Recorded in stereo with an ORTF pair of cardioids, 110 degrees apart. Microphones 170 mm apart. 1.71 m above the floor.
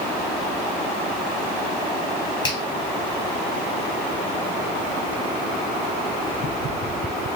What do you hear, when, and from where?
2.4 s a finger snap: 25° left, 2.5 m